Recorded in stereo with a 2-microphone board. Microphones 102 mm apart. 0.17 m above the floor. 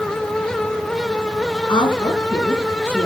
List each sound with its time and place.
1.7 s a woman speaking: 55° left (ahead or behind), 2 m; by 3.1 s 20° left (ahead or behind), 2 m